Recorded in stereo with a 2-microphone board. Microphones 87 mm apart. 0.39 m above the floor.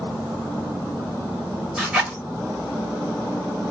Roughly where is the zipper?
Centre.